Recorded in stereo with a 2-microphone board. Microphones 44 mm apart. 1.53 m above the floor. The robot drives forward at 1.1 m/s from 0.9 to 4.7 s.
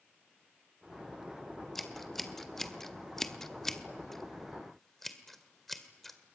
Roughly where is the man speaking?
No man speaking in this recording.